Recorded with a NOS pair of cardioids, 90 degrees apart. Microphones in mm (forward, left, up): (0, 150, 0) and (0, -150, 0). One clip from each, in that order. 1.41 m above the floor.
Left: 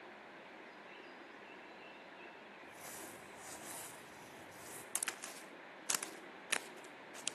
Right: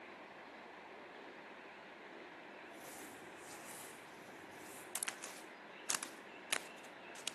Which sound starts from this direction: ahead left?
Crumpling, at 2.6 s.